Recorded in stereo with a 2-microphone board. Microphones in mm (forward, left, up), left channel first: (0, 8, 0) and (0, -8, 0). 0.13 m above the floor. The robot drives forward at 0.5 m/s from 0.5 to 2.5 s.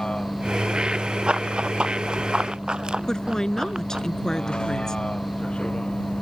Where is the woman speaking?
35° left (ahead or behind).